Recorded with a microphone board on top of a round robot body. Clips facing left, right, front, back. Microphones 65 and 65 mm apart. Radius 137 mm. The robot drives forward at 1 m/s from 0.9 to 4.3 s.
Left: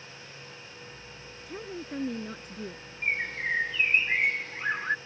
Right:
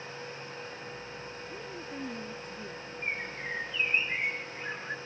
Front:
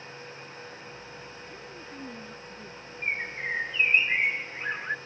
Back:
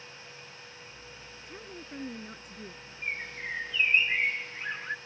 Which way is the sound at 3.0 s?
55° left.